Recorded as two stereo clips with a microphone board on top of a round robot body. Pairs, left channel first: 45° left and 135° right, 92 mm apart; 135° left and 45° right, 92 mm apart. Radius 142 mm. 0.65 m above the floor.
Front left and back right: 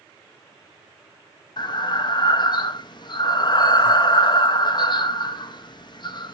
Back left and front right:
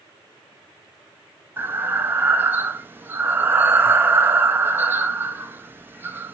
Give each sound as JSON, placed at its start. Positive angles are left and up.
{"t": 1.6, "sound": "breathing", "azimuth_deg": 20, "distance_m": 0.7}